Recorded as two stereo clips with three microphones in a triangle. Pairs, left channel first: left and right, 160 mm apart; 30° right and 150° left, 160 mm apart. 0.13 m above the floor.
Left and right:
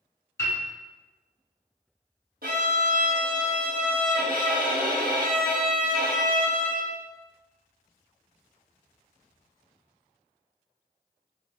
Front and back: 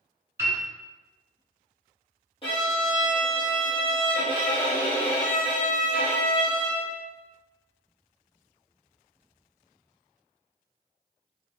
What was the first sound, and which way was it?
A piano, 120° left.